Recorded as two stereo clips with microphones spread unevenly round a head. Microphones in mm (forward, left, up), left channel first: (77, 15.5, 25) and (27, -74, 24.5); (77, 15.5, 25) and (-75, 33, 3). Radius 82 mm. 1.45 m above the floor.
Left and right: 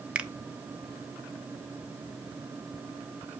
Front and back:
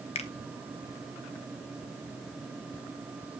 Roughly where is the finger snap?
Ahead right.